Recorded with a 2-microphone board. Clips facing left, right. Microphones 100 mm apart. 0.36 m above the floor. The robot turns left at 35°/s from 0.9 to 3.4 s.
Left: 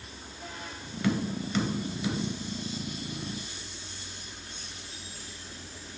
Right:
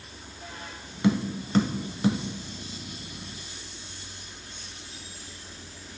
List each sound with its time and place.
1.0 s tapping: 25° right (ahead or behind), 0.8 m; by 2.2 s 55° right (ahead or behind), 0.8 m